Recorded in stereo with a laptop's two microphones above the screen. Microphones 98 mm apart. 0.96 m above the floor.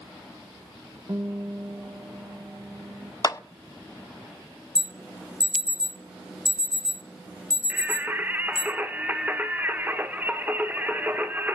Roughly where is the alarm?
Centre.